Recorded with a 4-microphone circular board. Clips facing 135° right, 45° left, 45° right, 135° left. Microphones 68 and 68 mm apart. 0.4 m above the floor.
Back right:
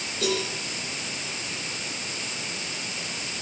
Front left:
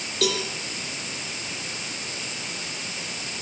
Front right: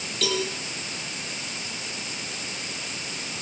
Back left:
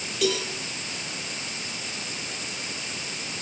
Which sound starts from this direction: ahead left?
A cowbell, at 0.2 s.